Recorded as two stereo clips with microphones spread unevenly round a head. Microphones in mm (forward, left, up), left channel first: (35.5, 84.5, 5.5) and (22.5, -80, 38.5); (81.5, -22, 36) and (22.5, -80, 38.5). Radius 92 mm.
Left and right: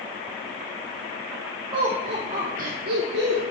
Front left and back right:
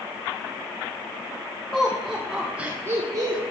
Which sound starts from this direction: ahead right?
Laughter, at 1.7 s.